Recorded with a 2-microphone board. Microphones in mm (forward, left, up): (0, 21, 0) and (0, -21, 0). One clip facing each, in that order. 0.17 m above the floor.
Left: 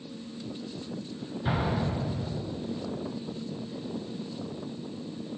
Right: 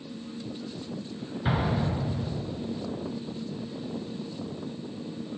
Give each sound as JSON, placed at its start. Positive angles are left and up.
{"t": 1.4, "sound": "an explosion", "side_deg": -30, "distance_m": 2.0}